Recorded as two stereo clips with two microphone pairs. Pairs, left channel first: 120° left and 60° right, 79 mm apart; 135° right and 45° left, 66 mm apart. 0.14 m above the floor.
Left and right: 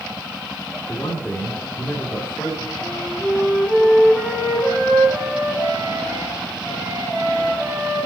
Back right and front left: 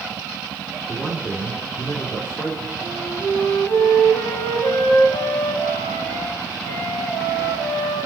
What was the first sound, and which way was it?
A man speaking, straight behind.